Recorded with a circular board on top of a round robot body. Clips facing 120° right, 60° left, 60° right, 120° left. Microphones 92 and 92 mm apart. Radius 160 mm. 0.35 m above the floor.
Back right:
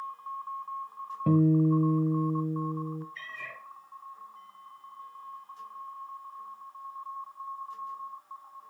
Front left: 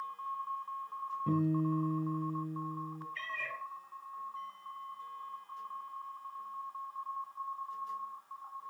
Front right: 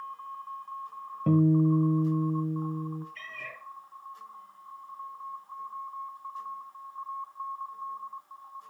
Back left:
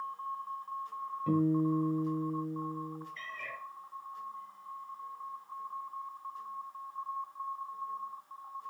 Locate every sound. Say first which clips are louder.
1.3 s a guitar: back right 9 dB, front right 6 dB; 95° right, 1.1 m
3.1 s a cat meowing: front left 2 dB, even; 50° right, 5 m